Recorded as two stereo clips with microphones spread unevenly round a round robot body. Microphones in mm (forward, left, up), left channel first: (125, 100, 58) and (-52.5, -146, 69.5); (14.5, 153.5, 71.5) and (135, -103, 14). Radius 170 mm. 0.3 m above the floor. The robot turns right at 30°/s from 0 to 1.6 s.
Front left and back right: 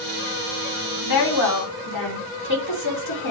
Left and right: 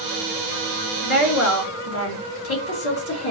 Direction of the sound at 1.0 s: 60° left.